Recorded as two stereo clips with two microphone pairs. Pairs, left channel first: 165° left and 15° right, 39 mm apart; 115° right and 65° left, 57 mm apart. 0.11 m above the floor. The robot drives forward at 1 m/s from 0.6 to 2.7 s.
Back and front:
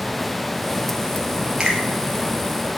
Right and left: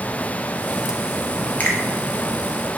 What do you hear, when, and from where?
1.6 s a finger snap: 75° right, 1.9 m; by 1.8 s 80° right, 1.9 m